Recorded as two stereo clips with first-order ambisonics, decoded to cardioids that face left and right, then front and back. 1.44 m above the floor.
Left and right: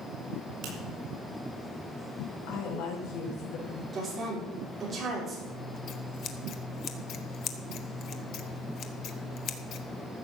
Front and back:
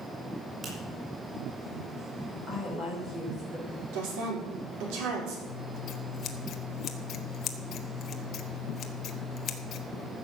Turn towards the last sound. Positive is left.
turn(degrees=50)